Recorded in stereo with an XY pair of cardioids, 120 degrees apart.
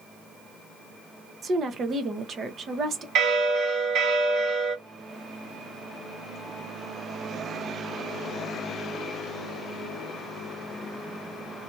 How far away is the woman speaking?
About 0.8 m.